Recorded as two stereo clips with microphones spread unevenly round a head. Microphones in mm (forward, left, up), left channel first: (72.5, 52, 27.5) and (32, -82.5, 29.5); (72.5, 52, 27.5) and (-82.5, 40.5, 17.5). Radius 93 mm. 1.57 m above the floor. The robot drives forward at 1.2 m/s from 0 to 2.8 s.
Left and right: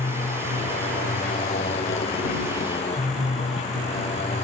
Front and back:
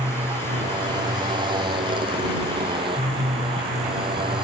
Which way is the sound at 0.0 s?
125° left.